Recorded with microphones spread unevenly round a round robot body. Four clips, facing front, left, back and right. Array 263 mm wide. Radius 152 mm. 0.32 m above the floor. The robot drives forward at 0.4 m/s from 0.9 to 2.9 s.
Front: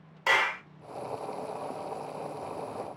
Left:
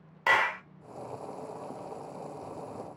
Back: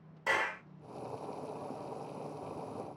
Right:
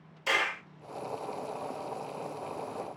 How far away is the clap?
About 1.5 m.